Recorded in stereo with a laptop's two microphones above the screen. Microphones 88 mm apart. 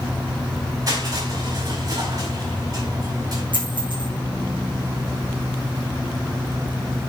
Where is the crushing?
45° right (ahead or behind), 5 m.